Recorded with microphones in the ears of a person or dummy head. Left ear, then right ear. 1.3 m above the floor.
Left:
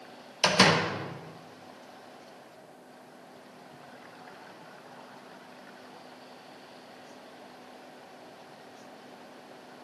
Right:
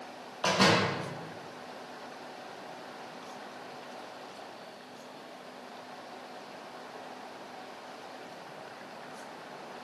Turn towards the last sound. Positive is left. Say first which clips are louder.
# left 3 dB
turn(degrees=65)  # may be behind; listen again after turning